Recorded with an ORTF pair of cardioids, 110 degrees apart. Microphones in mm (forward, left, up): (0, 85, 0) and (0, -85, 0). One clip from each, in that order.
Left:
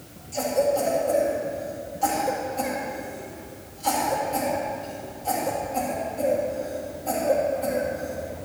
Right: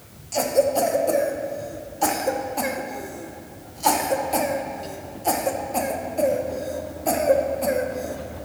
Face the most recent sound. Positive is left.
turn(degrees=-55)